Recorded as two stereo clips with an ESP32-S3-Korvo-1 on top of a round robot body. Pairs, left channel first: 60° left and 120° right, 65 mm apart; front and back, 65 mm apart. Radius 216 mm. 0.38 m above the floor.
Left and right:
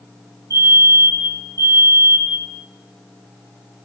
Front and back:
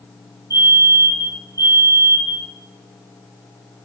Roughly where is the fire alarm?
Behind right.